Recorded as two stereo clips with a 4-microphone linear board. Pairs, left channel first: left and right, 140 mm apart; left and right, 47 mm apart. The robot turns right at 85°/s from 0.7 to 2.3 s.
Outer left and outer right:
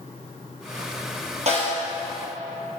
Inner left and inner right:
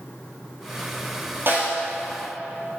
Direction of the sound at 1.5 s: 50° right (ahead or behind).